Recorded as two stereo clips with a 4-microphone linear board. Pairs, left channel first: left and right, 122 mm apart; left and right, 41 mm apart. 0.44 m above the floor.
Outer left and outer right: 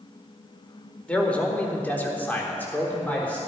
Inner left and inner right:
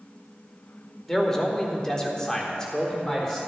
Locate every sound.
1.1 s a man speaking: 10° left (ahead or behind), 1.5 m; by 3.4 s 15° left (ahead or behind), 1.5 m